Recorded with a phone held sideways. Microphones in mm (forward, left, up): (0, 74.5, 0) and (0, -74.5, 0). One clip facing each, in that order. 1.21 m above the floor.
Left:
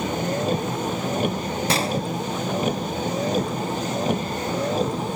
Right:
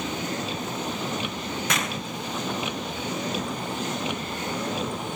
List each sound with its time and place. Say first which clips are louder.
0.0 s a vehicle: left 6 dB; 50° left (ahead or behind); by 5.2 s 40° left (ahead or behind)
1.7 s a gunshot: left 8 dB; 30° left (ahead or behind)